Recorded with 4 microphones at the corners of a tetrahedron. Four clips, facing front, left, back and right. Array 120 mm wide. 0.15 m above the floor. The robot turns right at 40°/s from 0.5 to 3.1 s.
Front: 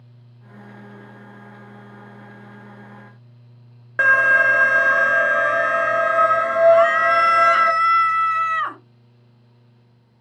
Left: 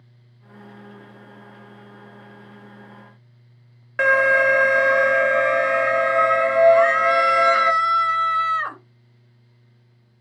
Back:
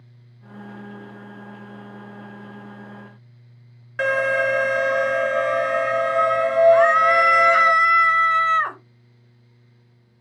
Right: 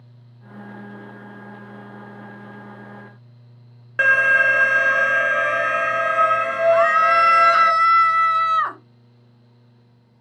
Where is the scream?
75° right, 1.5 m.